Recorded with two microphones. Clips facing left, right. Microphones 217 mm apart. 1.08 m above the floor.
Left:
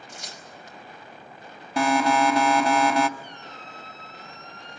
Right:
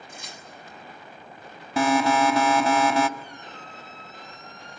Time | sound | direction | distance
0.1 | tearing paper | 90° left | 5 m
1.8 | an alarm | centre (ahead or behind) | 1.7 m
3.2 | a squeak | 70° left (ahead or behind) | 5.5 m